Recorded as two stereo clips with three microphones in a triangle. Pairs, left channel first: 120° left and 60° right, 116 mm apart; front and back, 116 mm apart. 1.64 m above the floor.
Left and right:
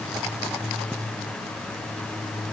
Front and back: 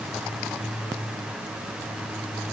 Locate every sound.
Only background noise.